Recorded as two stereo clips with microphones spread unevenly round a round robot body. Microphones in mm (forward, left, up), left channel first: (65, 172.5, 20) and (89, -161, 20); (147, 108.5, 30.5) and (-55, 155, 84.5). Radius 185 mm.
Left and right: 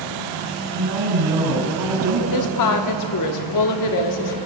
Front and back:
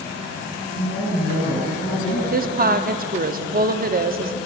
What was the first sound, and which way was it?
A woman speaking, 65° right.